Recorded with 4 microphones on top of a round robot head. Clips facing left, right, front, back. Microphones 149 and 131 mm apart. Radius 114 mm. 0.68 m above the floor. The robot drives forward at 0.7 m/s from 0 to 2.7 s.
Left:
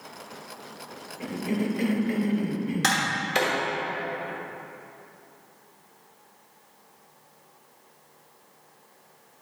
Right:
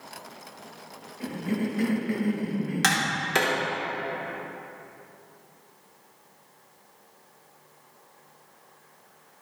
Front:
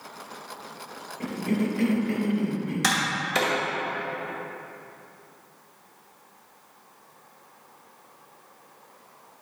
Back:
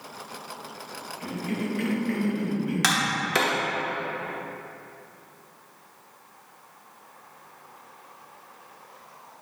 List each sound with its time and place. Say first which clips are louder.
1.2 s a cough: left 1 dB, front 4 dB; 20° left, 1.3 m; by 3.2 s 110° left, 0.9 m
2.8 s tapping: even, back 1 dB; 135° right, 0.9 m